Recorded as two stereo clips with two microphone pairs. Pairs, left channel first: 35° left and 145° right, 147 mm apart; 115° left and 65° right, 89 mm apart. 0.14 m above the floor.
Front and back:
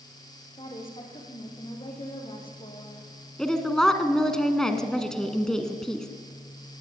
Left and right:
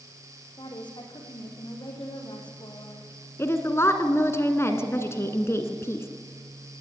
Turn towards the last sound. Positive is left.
turn(degrees=115)